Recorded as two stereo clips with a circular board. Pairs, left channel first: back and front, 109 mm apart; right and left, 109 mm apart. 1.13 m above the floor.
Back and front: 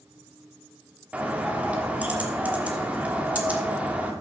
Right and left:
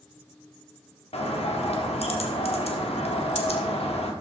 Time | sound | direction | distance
1.1 | a bird | 75° right | 1.2 m